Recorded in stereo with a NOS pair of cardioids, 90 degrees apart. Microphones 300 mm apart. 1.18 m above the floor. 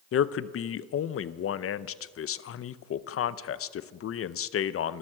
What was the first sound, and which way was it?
A man speaking, 50° left.